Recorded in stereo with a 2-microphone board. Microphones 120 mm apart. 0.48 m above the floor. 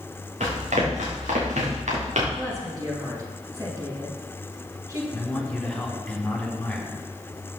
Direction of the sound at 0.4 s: 80° right.